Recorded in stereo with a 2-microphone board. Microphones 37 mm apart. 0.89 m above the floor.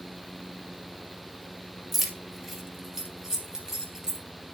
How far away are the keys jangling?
About 2 m.